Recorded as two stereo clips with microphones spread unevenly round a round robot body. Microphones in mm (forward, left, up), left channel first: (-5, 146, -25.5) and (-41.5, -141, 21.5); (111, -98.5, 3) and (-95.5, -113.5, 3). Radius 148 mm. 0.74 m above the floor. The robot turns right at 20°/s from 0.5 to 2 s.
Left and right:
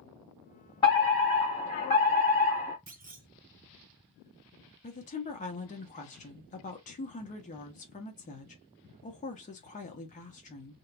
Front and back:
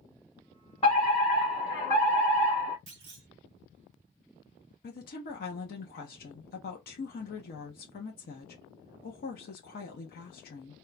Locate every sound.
0.8 s a fire alarm: 40° left, 1.7 m; by 2.8 s 65° left, 1.7 m
2.9 s a clunk: 155° right, 0.9 m
4.8 s a woman speaking: 35° left, 0.6 m